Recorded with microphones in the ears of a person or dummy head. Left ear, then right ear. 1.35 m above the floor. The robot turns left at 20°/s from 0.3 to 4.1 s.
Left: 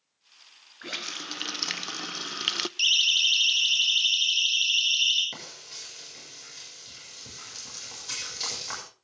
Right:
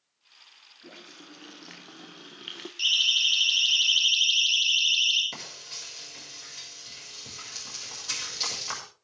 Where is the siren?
15° left (ahead or behind), 5.5 m; by 5.2 s 10° right (ahead or behind), 9 m.